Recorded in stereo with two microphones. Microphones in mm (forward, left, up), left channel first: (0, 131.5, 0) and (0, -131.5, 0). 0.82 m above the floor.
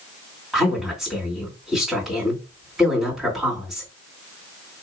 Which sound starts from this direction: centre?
A woman speaking, at 0.5 s.